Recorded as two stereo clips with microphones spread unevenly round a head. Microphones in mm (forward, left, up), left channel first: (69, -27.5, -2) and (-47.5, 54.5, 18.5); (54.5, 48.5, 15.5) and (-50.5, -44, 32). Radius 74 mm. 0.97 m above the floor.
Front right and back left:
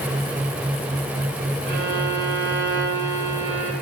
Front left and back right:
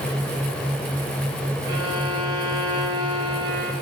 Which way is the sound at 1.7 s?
175° left.